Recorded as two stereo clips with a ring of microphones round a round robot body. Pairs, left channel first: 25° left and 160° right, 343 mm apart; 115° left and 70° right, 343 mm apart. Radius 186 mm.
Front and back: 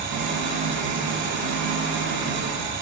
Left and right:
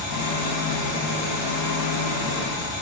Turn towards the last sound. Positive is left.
turn(degrees=145)